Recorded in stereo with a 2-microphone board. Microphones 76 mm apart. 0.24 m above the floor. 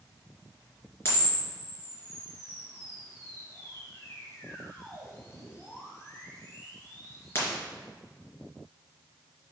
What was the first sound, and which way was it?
A camera shutter, 30° left (ahead or behind).